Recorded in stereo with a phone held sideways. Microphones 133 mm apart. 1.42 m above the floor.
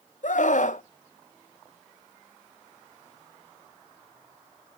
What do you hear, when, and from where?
0.2 s a scream: 70° left (ahead or behind), 0.8 m